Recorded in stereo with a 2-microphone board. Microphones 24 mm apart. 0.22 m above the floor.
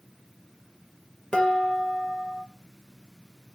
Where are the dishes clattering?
25° left (ahead or behind), 3 m.